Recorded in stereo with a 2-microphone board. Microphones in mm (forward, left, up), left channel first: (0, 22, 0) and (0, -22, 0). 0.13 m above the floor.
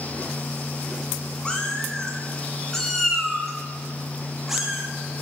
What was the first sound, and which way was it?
A cat meowing, 20° left (ahead or behind).